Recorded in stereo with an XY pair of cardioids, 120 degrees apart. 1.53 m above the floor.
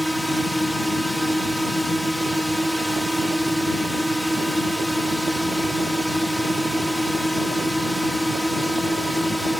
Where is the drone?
Straight ahead.